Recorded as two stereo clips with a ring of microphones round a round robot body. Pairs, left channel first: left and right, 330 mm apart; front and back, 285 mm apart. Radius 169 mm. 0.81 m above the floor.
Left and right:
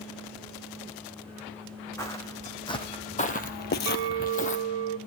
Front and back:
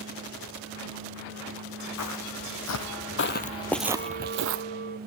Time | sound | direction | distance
2.0 | footsteps | 10° left | 2.5 m
3.9 | a clink | 70° right | 0.6 m